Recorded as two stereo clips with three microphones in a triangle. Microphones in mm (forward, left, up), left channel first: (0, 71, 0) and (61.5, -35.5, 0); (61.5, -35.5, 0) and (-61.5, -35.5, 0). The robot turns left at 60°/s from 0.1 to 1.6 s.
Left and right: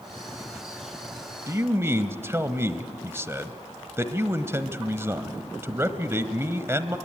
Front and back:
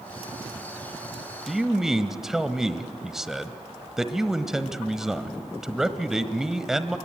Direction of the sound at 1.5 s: 90° right.